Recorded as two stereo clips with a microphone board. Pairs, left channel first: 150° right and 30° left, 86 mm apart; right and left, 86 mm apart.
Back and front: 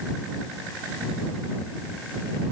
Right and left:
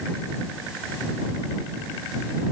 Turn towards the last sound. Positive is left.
No sound to turn to.